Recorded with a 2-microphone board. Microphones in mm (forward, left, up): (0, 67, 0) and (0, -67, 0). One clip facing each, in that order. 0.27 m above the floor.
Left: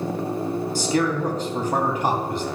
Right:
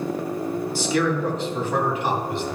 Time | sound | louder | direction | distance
0.8 | a man speaking | even | 40° left (ahead or behind) | 2.5 m